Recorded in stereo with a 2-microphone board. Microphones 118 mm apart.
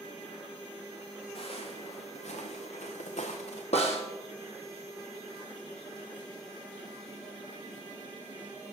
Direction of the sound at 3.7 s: 60° left (ahead or behind).